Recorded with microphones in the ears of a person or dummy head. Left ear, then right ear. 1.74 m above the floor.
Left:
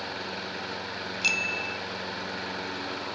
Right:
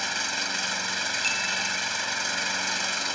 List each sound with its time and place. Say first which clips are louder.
0.0 s an engine running: right 7 dB; 80° right
1.2 s a bicycle bell: left 4 dB; 15° left (ahead or behind)